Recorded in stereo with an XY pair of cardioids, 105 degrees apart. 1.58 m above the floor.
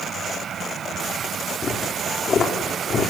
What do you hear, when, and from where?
1.6 s footsteps: 50° left, 5.5 m